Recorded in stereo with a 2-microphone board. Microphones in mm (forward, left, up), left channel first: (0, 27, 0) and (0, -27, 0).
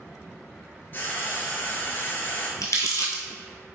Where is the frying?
40° left (ahead or behind), 0.8 m.